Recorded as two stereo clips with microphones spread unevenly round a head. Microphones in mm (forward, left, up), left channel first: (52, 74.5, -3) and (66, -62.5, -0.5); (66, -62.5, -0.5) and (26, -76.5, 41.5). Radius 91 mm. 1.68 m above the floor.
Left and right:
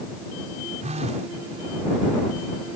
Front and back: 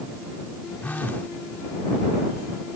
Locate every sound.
0.8 s a phone buzzing: 45° right